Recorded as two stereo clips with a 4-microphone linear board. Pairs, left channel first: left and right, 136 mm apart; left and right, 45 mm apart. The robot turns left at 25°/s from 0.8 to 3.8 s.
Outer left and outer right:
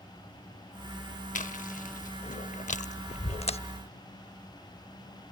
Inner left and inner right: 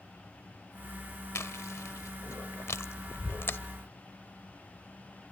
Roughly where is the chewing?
Left.